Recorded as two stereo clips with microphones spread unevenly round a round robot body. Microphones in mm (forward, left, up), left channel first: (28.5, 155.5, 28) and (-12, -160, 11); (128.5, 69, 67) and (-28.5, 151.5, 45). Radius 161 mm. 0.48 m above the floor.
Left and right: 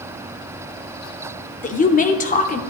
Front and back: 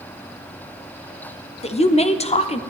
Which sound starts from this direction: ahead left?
A woman speaking, at 1.6 s.